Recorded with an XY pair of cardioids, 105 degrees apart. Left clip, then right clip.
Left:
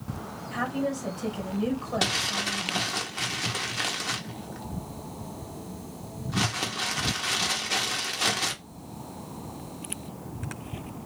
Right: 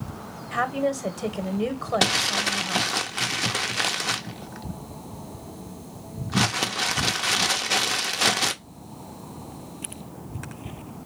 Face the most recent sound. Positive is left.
turn(degrees=-40)